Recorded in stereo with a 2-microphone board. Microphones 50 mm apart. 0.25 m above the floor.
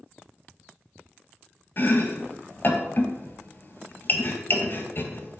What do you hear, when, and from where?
1.8 s chopping: 45° left (ahead or behind), 0.7 m